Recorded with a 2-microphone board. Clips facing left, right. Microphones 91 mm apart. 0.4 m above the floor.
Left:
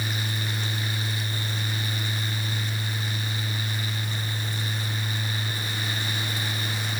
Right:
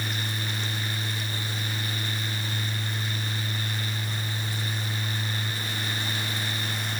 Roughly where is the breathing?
No breathing in this recording.